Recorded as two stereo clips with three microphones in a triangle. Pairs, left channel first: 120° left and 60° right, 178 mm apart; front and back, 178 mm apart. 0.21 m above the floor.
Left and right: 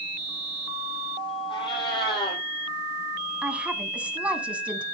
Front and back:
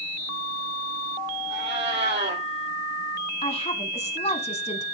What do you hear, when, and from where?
1.5 s a cat meowing: straight behind, 4 m
3.4 s a woman speaking: 20° left, 1.2 m